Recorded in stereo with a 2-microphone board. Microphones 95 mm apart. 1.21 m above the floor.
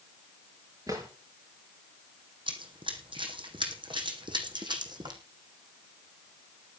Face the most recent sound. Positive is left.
turn(degrees=-50)  # may be behind; listen again after turning